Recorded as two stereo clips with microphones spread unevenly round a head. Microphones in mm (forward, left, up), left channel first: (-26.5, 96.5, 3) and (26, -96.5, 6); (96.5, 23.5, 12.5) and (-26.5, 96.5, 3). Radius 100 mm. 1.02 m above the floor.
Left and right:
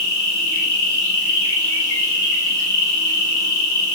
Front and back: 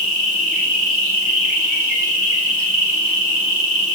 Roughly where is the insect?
Behind left.